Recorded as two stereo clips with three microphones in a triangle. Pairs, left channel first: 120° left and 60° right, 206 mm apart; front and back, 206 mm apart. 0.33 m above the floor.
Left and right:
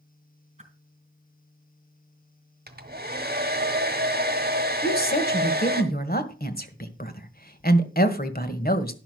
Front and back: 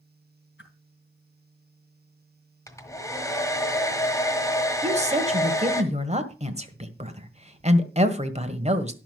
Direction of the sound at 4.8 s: 135° left.